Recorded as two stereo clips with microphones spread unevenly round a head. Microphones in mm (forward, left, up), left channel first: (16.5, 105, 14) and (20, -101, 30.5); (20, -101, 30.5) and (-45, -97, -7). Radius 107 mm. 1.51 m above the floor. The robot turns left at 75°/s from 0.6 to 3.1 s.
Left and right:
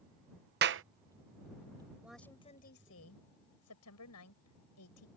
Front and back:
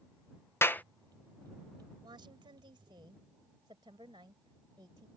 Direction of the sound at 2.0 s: 170° right.